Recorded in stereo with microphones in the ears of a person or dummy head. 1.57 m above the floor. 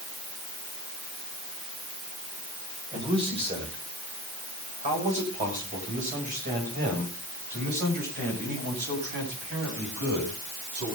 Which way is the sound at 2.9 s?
30° right (ahead or behind).